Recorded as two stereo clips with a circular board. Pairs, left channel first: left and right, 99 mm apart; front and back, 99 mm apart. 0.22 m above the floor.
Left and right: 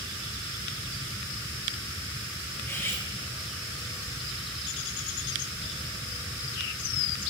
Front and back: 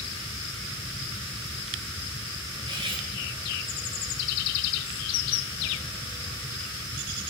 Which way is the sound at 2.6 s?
150° left.